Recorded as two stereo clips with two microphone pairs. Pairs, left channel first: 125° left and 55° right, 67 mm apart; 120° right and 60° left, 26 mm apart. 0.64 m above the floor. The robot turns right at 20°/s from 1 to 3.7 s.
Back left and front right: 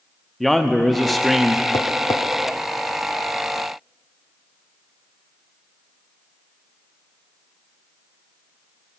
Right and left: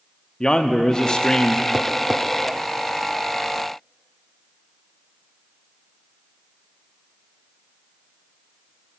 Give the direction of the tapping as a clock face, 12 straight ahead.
8 o'clock.